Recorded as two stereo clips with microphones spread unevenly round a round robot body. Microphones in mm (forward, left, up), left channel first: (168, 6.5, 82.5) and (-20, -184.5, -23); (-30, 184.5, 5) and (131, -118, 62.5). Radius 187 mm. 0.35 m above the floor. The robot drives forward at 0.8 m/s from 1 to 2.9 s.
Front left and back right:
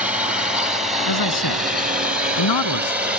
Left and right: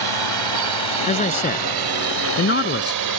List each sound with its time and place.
0.0 s a drone: 60° right; by 3.2 s 70° right
1.1 s a man speaking: 50° left; by 3.0 s 60° left